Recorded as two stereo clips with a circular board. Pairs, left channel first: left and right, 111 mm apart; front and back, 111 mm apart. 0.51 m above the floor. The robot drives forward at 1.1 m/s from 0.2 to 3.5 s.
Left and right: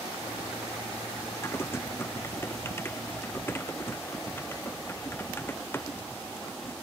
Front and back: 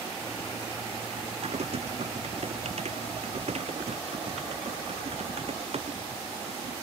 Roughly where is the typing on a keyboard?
Behind.